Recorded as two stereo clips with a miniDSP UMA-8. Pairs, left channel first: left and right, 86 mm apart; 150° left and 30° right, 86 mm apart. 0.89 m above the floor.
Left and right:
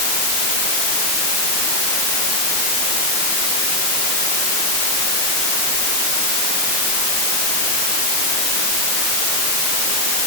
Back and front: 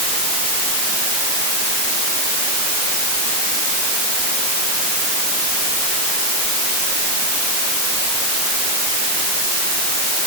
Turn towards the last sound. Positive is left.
No sound to turn to.